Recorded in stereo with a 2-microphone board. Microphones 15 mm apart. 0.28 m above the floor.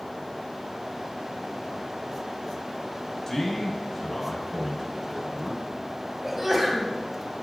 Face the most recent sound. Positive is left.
turn(degrees=-15)  # may be behind; listen again after turning